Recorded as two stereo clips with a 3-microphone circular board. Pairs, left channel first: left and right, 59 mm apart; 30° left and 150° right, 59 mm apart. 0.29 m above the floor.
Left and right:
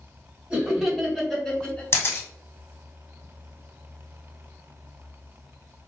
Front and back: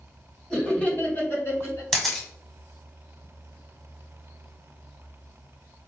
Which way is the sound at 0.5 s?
35° right.